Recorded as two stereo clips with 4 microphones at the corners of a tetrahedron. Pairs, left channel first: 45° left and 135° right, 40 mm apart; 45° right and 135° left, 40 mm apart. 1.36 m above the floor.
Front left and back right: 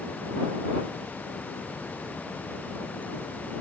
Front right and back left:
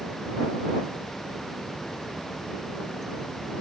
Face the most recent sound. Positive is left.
No sound to turn to.